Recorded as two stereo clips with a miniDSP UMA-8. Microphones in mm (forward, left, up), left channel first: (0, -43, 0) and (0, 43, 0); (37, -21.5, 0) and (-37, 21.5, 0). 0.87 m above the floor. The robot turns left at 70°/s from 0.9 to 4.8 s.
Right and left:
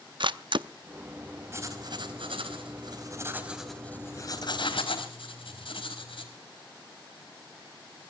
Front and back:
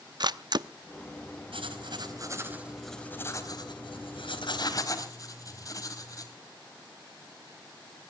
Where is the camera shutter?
115° left, 0.6 m.